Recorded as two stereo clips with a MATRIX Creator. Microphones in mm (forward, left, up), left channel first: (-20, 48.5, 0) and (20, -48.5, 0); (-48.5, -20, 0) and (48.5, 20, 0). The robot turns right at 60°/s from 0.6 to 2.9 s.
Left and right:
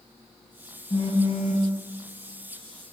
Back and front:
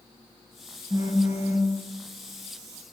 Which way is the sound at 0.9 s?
65° left.